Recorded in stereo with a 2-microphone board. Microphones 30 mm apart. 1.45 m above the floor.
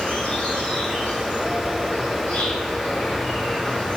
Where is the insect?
40° left (ahead or behind), 3.5 m.